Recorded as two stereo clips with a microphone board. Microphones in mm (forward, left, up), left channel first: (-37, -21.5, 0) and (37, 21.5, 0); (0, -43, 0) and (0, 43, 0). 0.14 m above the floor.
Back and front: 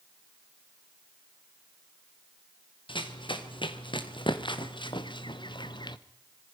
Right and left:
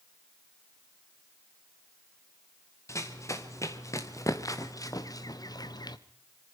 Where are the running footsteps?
145° right, 3 m; by 6.0 s 125° right, 1.2 m.